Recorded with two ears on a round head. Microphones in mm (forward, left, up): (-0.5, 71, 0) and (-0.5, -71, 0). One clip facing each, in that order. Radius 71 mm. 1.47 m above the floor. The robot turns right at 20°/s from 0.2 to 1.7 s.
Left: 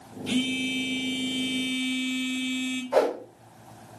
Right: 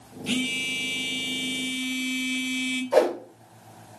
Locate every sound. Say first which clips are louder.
0.3 s a phone buzzing: left 3 dB; 25° right (ahead or behind), 1.0 m; by 2.8 s 50° right (ahead or behind), 1.0 m
2.9 s a whoosh: right 2 dB; 35° right (ahead or behind), 1.7 m